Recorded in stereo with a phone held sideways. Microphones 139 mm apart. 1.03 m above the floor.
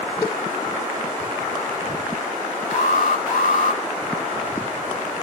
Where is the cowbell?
25° left (ahead or behind), 6.5 m.